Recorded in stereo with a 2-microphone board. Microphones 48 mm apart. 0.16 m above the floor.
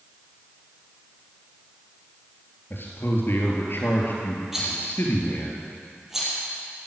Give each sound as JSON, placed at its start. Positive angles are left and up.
{"t": 2.7, "sound": "a man speaking", "side_deg": 50, "distance_m": 3.5}
{"t": 4.5, "sound": "a rattle", "side_deg": -5, "distance_m": 4.5}